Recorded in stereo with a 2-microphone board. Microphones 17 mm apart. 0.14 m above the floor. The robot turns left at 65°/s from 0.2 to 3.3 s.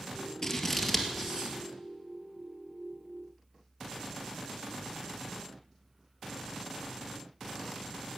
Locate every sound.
0.4 s scissors: 30° left (ahead or behind), 1.6 m; by 1.6 s 35° right (ahead or behind), 1.6 m